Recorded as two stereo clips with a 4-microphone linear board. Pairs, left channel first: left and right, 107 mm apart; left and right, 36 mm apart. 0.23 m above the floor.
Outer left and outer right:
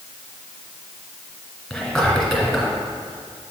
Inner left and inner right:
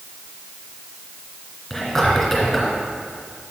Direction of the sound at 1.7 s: Centre (ahead or behind).